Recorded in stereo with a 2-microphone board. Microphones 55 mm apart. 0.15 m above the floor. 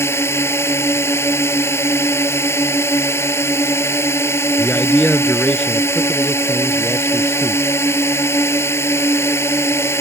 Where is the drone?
55° left (ahead or behind).